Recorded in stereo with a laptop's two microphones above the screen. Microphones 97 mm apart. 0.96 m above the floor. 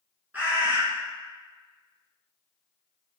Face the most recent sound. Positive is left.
turn(degrees=-20)  # may be behind; listen again after turning